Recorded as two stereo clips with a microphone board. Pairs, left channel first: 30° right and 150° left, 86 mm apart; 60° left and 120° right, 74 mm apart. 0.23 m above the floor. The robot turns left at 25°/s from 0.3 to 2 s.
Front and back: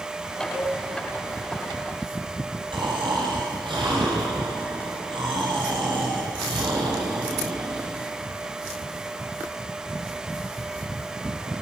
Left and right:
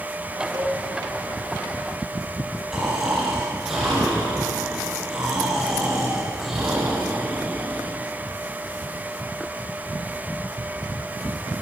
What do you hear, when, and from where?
0.5 s a cowbell: 135° right, 2.5 m; by 0.8 s 140° right, 2.5 m
2.7 s snoring: 150° left, 8.5 m